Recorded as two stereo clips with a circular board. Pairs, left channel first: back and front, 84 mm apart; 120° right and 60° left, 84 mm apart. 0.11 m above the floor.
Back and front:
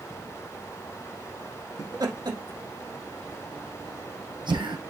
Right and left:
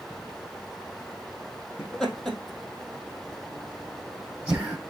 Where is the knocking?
I don't hear knocking.